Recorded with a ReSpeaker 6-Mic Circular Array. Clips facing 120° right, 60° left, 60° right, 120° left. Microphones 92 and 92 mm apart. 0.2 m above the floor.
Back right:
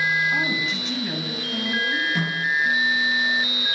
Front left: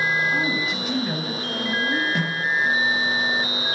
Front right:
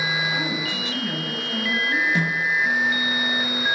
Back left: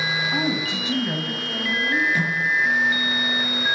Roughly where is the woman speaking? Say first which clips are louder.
Front left 1 dB, back left 3 dB; behind.